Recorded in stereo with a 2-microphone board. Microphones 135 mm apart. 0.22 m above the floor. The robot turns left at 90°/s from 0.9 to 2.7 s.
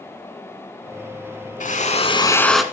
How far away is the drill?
About 0.8 m.